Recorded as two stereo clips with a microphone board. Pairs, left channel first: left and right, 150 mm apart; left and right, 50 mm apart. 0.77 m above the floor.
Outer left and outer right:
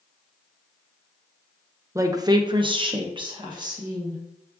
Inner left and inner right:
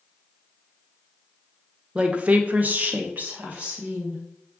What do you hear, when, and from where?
1.9 s a woman speaking: 20° right (ahead or behind), 0.5 m; by 4.2 s 25° right (ahead or behind), 1.1 m